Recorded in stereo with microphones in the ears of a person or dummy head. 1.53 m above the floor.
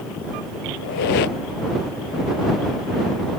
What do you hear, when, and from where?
0.8 s a squeak: 50° left (ahead or behind)